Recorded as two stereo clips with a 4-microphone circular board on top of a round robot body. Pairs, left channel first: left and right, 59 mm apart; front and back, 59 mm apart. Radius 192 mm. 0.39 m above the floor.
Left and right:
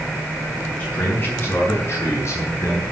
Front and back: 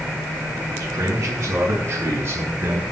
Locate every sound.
0.8 s a man speaking: 155° left, 5.5 m; by 2.8 s 130° left, 6.5 m